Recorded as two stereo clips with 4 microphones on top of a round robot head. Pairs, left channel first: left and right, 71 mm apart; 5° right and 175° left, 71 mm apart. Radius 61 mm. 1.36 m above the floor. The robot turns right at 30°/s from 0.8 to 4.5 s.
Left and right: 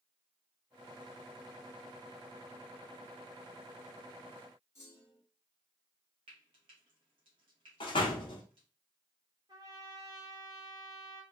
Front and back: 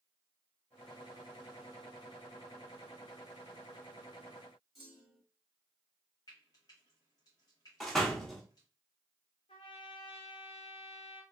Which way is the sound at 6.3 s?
60° right.